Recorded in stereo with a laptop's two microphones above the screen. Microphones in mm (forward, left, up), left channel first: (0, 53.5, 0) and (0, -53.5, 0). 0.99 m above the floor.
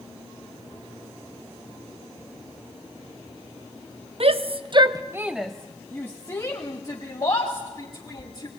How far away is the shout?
About 1.0 m.